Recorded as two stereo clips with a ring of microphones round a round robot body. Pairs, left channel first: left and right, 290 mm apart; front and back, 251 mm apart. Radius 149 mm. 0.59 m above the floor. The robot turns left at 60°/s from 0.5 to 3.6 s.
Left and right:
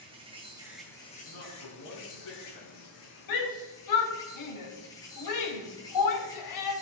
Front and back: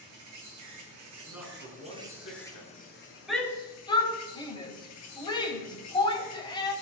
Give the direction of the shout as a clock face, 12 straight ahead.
9 o'clock.